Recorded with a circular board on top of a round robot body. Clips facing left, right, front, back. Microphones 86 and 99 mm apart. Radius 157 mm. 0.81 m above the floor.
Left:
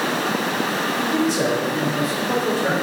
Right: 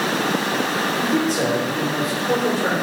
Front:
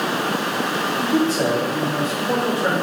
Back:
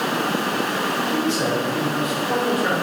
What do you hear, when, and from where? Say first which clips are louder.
1.0 s a man speaking: left 1 dB, front 5 dB; 45° right, 3 m; by 2.7 s 65° right, 3.5 m